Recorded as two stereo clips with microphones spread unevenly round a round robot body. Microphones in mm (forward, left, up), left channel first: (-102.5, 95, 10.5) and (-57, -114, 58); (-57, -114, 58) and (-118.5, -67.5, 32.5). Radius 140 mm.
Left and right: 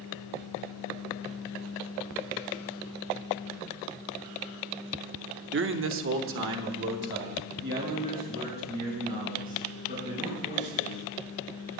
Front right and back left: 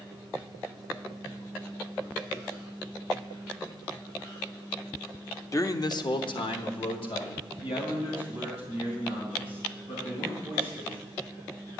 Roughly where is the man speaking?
Right.